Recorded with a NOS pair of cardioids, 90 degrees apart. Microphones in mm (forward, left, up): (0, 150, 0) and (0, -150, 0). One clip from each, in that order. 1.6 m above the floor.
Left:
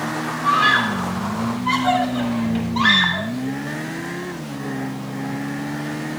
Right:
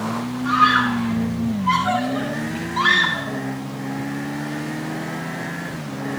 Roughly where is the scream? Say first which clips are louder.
Even; ahead left.